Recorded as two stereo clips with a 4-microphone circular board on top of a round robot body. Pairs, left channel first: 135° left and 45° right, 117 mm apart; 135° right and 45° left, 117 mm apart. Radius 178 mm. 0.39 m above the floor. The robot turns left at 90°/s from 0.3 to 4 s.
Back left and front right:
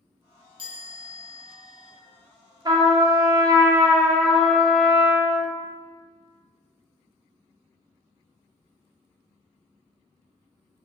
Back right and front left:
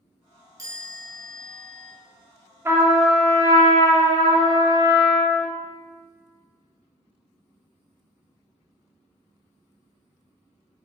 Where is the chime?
10° right, 1.2 m; by 1.9 s 130° right, 1.2 m.